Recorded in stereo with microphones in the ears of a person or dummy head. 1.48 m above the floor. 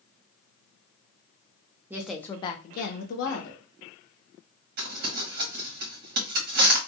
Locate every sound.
1.9 s a woman speaking: 10° right (ahead or behind), 0.5 m; by 3.6 s 80° left, 0.9 m
4.8 s crumpling: 60° right (ahead or behind), 1.4 m